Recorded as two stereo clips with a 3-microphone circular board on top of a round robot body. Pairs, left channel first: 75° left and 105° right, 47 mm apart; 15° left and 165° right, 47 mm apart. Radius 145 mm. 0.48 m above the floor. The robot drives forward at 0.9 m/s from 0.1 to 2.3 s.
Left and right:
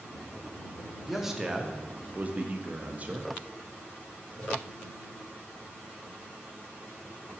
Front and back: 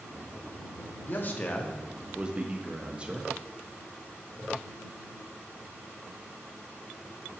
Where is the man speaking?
20° right, 1.2 m; by 3.3 s 120° right, 0.8 m.